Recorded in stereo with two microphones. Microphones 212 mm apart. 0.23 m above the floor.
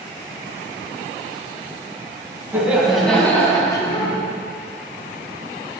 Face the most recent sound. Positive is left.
turn(degrees=25)  # may be behind; listen again after turning